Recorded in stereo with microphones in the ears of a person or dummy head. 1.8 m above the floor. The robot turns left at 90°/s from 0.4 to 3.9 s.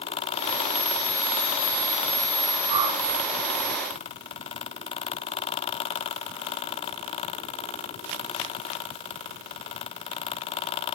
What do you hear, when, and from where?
2.7 s a whoosh: 40° right (ahead or behind), 4.5 m; by 3.0 s 10° right (ahead or behind), 4.5 m